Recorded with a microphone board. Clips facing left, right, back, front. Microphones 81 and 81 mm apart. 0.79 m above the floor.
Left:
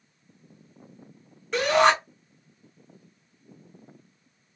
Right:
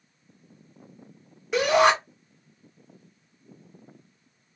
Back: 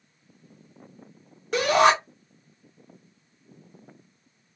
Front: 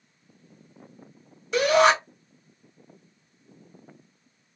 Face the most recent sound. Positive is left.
turn(degrees=-170)